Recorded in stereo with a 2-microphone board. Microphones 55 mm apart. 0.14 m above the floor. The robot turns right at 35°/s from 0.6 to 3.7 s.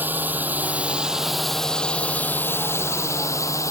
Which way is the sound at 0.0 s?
35° right (ahead or behind).